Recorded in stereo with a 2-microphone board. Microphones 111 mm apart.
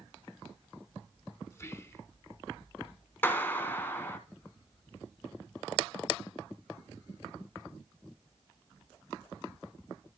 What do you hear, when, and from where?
1.5 s whispering: 25° left (ahead or behind), 1.4 m
3.2 s a clap: 20° left (ahead or behind), 1.5 m